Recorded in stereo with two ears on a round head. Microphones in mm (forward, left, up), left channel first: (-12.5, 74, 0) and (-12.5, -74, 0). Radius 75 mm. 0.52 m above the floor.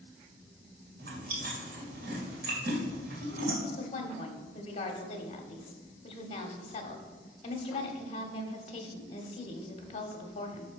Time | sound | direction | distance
1.0 | chewing | 65° right (ahead or behind) | 2.5 m
3.6 | a woman speaking | 40° left (ahead or behind) | 1.4 m